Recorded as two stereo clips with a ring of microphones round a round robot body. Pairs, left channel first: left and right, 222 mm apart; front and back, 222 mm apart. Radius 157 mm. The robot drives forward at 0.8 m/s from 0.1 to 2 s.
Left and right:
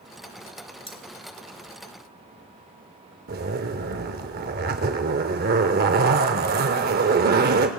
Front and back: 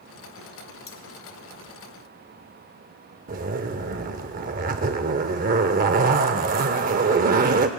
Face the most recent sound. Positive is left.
turn(degrees=-130)